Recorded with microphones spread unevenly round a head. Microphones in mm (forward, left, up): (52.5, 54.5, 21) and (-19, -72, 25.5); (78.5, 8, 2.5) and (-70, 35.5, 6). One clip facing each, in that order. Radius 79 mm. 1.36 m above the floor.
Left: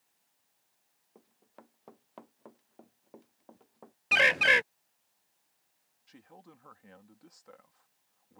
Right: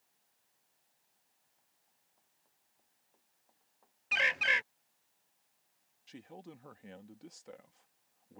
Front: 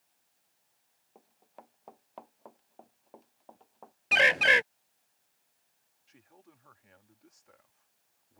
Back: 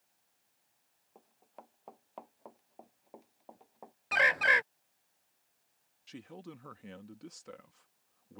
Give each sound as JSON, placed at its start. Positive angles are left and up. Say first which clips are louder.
{"t": 1.1, "sound": "running footsteps", "louder": "left 23 dB, front 1 dB", "azimuth_deg": 75}
{"t": 4.1, "sound": "a bird", "louder": "left 9 dB, front 4 dB", "azimuth_deg": 45}
{"t": 6.1, "sound": "a man speaking", "louder": "right 5 dB, back 13 dB", "azimuth_deg": 175}